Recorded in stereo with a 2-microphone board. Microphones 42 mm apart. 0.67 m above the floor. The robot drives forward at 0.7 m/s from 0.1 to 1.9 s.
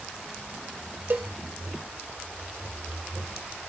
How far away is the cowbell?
About 0.6 m.